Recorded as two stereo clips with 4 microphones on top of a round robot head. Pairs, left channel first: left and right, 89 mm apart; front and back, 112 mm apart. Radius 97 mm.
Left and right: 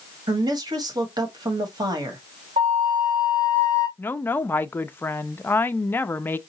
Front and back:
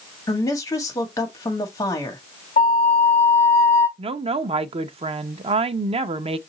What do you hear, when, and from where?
0.3 s a woman speaking: 60° right, 1.3 m
2.6 s a flute: 45° right, 0.5 m
4.0 s a woman speaking: 155° left, 0.6 m